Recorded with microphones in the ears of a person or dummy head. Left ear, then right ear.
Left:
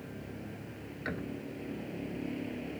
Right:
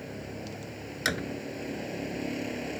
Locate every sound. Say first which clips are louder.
0.0 s a vehicle: right 6 dB; 45° right (ahead or behind)
1.1 s a door slam: right 9 dB; 80° right